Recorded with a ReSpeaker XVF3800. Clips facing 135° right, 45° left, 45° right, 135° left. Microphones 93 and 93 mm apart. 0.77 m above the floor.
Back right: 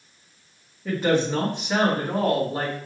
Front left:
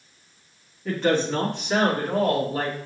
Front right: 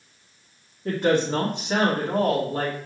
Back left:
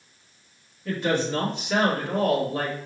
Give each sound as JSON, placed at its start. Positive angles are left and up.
{"t": 0.8, "sound": "a woman speaking", "azimuth_deg": -50, "distance_m": 1.3}